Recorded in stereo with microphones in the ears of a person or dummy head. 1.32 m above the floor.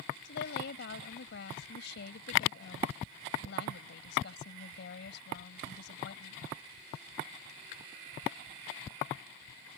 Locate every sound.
0.2 s a woman speaking: 70° left (ahead or behind)